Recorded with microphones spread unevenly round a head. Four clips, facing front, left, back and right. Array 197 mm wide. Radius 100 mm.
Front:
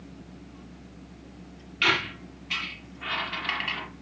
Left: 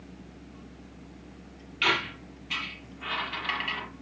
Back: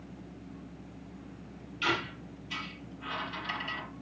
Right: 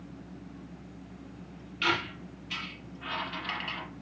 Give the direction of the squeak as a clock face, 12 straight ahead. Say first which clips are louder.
Left 2 dB, front 5 dB; 11 o'clock.